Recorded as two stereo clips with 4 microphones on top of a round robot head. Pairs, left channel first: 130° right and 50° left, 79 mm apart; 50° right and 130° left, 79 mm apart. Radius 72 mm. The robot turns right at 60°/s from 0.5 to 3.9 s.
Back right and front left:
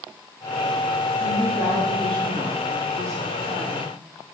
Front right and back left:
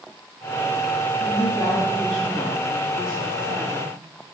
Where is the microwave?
I don't hear a microwave.